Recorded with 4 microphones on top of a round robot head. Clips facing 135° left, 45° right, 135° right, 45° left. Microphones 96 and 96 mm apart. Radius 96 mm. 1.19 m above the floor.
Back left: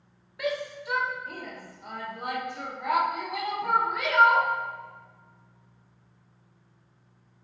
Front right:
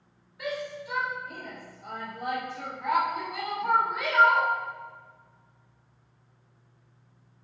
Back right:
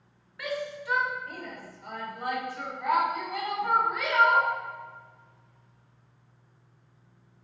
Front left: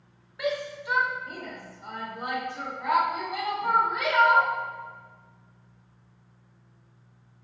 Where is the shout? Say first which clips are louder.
Back left 3 dB, front left 4 dB; 115° left, 1.5 m.